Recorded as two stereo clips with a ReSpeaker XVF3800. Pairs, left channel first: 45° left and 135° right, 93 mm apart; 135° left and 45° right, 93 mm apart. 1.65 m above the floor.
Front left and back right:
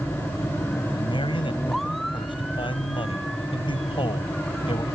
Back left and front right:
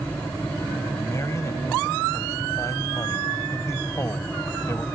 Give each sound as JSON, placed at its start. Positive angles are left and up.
{"t": 0.9, "sound": "a man speaking", "azimuth_deg": 75}